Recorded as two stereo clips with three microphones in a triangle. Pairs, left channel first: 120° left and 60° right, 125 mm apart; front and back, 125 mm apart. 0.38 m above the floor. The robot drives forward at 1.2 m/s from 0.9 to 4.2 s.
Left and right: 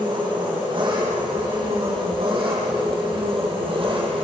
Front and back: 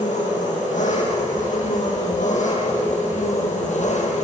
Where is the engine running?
10° right, 10 m; by 4.2 s 15° right, 6 m.